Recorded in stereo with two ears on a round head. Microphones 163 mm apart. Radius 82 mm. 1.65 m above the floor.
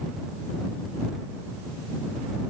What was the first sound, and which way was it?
Only background noise.